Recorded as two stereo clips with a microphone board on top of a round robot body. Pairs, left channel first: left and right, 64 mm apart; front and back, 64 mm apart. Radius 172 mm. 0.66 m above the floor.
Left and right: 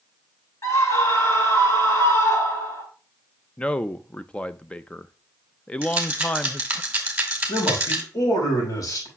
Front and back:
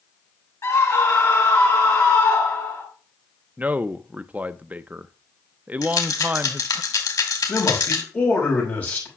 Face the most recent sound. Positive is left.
turn(degrees=60)